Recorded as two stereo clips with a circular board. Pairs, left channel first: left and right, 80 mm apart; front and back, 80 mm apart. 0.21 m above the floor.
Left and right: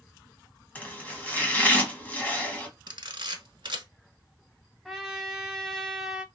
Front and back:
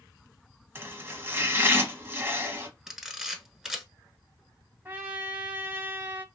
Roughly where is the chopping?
Behind left.